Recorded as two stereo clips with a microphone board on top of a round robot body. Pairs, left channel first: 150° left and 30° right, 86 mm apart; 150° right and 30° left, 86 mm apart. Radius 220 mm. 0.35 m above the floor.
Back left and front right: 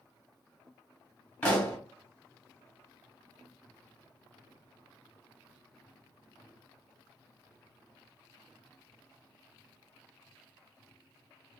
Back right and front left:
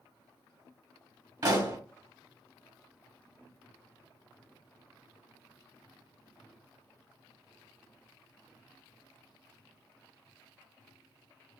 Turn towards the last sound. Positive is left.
turn(degrees=75)